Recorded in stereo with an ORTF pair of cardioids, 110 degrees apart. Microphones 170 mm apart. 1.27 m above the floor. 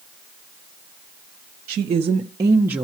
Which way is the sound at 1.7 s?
50° right.